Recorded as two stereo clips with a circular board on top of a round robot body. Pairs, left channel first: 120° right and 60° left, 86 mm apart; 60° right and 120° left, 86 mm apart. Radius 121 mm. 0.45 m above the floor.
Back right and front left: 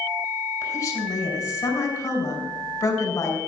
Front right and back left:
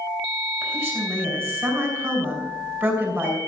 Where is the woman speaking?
175° right, 5 m.